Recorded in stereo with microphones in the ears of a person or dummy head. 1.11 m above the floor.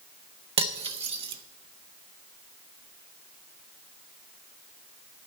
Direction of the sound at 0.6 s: 25° right (ahead or behind).